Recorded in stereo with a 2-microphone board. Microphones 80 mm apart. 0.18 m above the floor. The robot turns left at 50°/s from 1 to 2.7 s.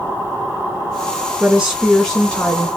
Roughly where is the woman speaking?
Behind.